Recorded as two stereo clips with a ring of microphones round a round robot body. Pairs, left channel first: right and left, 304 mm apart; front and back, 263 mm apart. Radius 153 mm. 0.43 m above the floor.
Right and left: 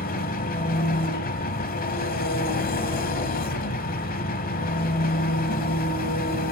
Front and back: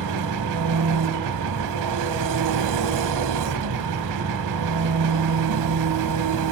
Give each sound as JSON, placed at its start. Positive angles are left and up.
{"t": 0.0, "sound": "an engine running", "azimuth_deg": -155, "distance_m": 1.0}